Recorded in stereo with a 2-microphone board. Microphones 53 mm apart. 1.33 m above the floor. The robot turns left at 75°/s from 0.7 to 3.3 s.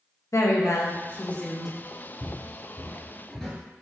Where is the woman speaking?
75° left, 0.7 m; by 1.8 s 5° right, 0.7 m.